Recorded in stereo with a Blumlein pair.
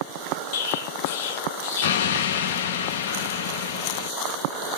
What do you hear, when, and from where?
0.5 s an explosion: 55° left, 0.7 m